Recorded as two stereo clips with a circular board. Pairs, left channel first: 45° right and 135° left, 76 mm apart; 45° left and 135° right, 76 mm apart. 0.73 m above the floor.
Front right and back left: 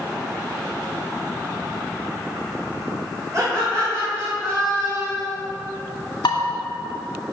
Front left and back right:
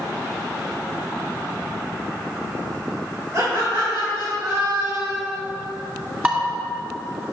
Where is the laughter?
Straight behind, 2.5 m; by 5.3 s 175° left, 5 m.